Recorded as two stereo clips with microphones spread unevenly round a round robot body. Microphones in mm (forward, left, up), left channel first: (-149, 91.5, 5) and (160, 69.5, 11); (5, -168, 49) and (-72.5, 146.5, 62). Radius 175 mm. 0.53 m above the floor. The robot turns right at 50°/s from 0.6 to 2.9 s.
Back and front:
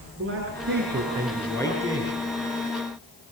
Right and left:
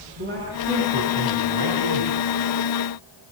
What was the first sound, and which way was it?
A man speaking, 45° left.